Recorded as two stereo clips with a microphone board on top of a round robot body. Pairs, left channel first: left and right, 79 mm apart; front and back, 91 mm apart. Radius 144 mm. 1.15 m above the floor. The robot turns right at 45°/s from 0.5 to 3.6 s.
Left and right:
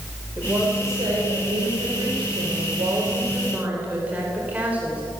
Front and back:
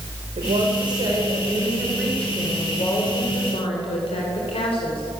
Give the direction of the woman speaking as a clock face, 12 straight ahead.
5 o'clock.